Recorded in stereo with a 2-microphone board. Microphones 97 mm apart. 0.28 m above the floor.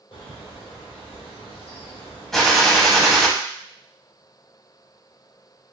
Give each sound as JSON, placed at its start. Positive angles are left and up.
{"t": 0.1, "sound": "a bird", "side_deg": 65, "distance_m": 2.5}
{"t": 2.3, "sound": "a gunshot", "side_deg": 5, "distance_m": 0.7}